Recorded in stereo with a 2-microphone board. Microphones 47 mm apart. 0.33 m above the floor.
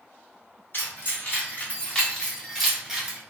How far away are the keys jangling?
About 1.6 m.